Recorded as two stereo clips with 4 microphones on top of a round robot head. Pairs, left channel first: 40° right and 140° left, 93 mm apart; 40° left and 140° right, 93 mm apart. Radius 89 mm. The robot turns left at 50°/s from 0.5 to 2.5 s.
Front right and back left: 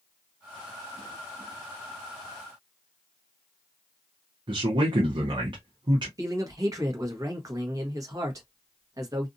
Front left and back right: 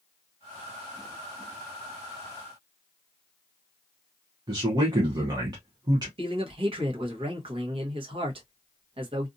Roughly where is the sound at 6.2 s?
Behind.